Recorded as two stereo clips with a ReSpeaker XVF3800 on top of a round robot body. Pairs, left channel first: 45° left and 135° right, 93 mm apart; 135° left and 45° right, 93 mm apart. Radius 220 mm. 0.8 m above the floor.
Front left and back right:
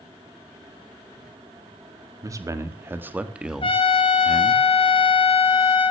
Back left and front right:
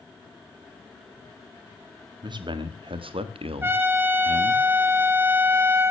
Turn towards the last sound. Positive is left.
turn(degrees=20)